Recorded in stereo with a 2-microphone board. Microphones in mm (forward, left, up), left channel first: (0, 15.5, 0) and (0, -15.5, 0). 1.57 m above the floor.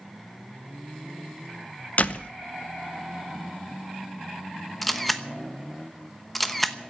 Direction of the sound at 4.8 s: 5° left (ahead or behind).